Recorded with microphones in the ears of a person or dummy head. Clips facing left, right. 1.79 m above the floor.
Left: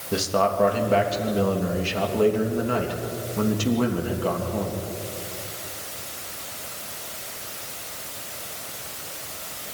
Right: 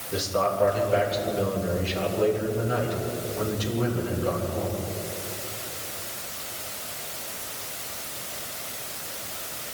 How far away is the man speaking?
About 3 m.